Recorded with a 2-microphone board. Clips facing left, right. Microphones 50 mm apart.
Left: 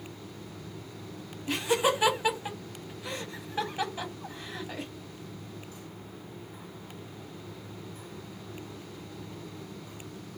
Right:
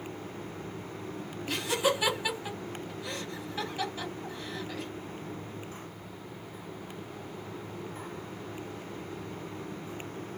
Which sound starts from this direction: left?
Laughter, at 1.5 s.